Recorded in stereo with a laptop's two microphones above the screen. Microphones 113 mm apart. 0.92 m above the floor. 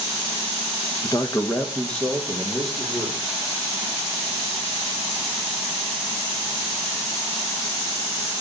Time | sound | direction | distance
1.0 | a man speaking | 35° left (ahead or behind) | 1.0 m